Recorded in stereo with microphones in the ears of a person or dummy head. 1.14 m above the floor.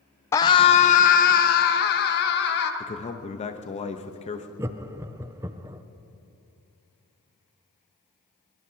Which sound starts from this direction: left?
A man speaking, at 2.8 s.